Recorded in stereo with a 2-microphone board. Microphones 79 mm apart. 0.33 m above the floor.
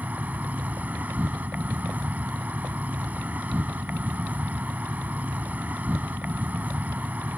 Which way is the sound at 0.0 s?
20° right (ahead or behind).